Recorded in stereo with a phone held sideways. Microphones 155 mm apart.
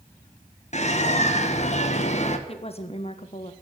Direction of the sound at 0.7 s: 50° left (ahead or behind).